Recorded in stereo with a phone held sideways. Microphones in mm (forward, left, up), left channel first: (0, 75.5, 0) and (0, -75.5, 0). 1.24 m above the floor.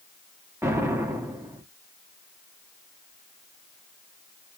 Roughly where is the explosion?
Centre.